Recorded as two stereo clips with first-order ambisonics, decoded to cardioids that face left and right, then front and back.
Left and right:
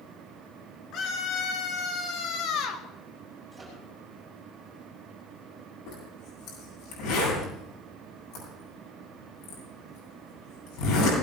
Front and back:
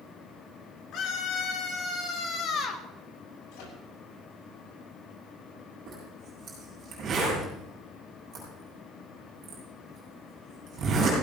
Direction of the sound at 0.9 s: 40° left.